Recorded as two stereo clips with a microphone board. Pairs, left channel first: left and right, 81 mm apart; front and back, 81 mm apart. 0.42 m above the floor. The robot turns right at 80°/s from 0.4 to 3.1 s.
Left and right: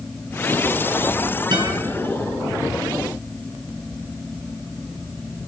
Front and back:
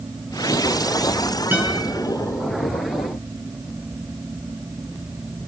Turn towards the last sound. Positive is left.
turn(degrees=15)